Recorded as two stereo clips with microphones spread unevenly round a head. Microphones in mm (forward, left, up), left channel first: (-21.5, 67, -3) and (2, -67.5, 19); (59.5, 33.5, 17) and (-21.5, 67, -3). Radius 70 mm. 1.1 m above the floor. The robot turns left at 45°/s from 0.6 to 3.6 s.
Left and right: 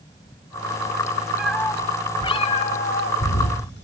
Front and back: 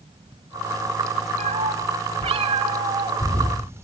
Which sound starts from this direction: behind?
A cat meowing, at 1.4 s.